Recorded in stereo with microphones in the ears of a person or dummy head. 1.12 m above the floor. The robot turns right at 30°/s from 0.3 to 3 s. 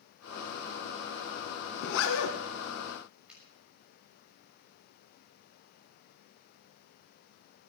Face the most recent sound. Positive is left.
turn(degrees=0)  # may be behind; listen again after turning